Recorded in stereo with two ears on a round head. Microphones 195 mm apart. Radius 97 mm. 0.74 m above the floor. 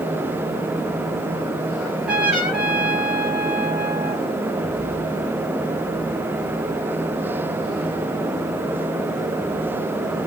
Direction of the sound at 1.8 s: 5° right (ahead or behind).